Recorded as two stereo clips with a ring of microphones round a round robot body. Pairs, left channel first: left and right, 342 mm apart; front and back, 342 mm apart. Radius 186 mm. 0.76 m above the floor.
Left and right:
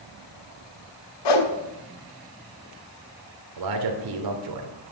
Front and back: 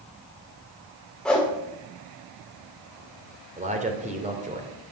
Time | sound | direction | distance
1.2 | a whoosh | 90° left | 1.9 m
3.6 | a man speaking | 110° right | 3 m